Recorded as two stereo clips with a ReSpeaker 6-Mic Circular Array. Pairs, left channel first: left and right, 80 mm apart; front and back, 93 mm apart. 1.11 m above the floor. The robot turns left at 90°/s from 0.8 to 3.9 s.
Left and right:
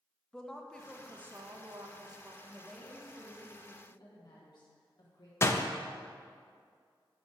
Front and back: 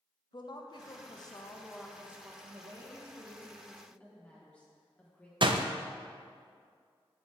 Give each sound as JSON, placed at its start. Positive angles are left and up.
{"t": 0.3, "sound": "a woman speaking", "azimuth_deg": 10, "distance_m": 0.8}
{"t": 2.4, "sound": "a woman speaking", "azimuth_deg": -150, "distance_m": 1.4}
{"t": 5.4, "sound": "a door slam", "azimuth_deg": 145, "distance_m": 0.5}